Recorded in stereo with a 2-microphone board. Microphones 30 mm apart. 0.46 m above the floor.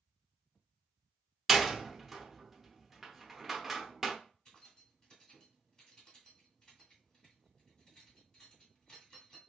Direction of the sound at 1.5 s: 5° right (ahead or behind).